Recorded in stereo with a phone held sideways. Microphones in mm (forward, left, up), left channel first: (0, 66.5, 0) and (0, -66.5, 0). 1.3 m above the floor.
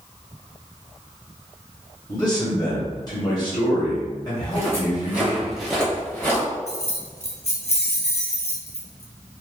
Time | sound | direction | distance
2.1 | a man speaking | 30° left (ahead or behind) | 1.8 m
4.4 | footsteps | 25° right (ahead or behind) | 1.5 m
6.7 | keys jangling | 55° left (ahead or behind) | 0.6 m